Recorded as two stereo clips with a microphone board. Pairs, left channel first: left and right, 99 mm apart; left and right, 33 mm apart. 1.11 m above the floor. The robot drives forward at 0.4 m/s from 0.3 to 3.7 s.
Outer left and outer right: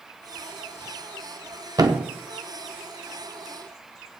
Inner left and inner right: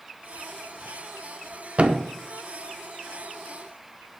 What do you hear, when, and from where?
1.8 s a thud: 40° right (ahead or behind), 0.9 m